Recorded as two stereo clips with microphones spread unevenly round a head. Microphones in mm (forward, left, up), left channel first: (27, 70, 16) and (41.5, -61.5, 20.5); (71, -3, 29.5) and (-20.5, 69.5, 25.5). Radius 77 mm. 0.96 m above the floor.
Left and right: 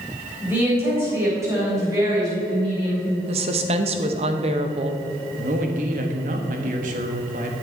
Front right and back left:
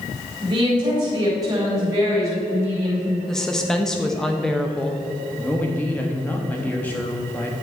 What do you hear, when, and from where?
0.4 s a woman speaking: 160° right, 4 m; by 3.2 s 145° right, 5 m
3.3 s a woman speaking: 125° right, 0.9 m
5.4 s a man speaking: 115° right, 1.4 m